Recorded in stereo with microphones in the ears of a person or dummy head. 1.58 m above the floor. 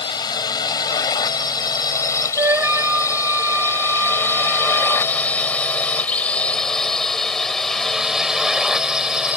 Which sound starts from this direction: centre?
A flute, at 2.4 s.